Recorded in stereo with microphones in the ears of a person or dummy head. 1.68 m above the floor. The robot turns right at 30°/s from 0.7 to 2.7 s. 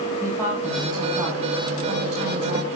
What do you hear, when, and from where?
0.2 s a woman speaking: 165° right, 9 m; by 2.7 s 105° right, 9 m